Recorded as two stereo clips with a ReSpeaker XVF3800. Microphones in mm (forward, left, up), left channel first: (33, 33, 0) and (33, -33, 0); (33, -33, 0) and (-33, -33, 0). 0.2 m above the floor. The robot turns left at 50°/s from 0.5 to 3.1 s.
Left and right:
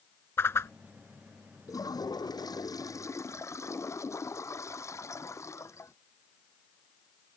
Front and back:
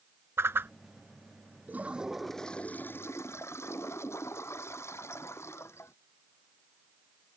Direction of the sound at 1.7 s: 120° left.